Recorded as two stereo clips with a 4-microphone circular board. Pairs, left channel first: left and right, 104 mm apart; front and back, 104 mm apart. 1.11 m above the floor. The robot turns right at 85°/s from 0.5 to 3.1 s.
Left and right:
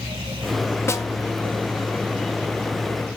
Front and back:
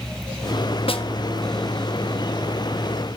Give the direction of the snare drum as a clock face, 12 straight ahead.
11 o'clock.